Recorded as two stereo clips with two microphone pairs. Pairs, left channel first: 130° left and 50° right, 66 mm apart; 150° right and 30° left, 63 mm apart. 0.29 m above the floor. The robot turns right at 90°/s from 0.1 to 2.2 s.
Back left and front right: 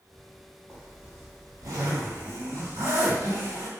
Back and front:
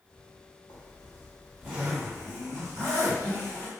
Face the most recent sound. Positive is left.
turn(degrees=-5)